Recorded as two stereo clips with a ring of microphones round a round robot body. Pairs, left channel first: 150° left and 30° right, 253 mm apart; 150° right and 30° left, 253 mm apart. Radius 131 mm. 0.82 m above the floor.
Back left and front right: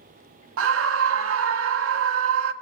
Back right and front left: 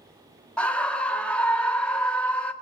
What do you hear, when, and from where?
0.6 s a scream: 65° right, 1.5 m